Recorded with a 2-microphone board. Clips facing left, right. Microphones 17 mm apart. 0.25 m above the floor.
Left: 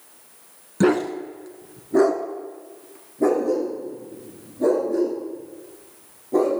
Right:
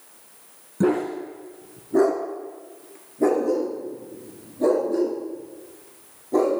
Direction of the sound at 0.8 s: 70° left (ahead or behind).